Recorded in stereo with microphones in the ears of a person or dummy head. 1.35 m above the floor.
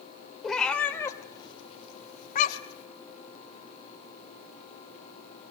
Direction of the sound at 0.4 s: Centre (ahead or behind).